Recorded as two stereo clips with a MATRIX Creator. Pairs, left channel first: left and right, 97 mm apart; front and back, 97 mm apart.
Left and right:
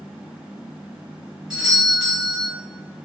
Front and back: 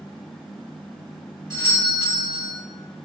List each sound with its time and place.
1.5 s a doorbell: 15° right, 2.0 m